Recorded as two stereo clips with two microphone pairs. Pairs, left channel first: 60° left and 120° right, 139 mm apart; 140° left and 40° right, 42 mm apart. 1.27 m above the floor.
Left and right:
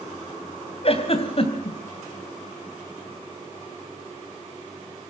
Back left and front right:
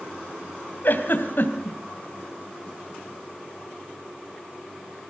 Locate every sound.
0.8 s a giggle: 105° left, 3.5 m